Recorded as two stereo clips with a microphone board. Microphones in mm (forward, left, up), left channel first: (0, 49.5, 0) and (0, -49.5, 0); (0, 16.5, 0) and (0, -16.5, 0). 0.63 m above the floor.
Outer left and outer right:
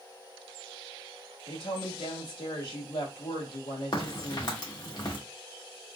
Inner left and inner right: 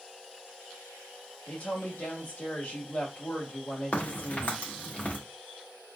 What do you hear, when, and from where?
1.5 s a woman speaking: 60° left (ahead or behind), 1.8 m
3.9 s a crack: 50° left (ahead or behind), 1.5 m